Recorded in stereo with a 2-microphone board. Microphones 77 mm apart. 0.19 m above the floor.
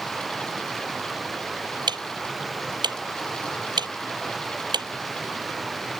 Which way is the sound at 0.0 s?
Centre (ahead or behind).